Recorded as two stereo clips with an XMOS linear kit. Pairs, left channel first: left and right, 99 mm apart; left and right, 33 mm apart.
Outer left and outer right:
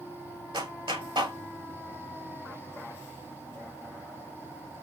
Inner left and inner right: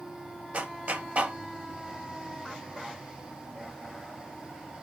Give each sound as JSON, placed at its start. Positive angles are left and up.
{"t": 0.5, "sound": "a clap", "side_deg": -50, "distance_m": 1.8}